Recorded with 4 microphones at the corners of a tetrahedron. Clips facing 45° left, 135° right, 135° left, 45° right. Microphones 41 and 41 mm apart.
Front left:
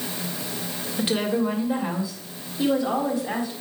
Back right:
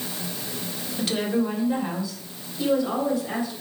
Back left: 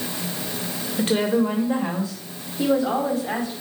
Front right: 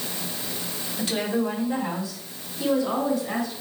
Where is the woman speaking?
110° left, 1.9 m.